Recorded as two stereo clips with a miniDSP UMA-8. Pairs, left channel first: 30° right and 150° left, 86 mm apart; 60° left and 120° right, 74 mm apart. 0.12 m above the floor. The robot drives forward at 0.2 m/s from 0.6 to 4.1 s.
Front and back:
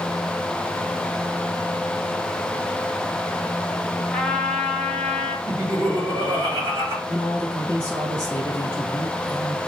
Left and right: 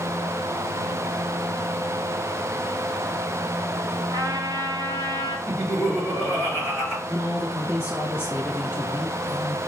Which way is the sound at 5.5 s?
175° right.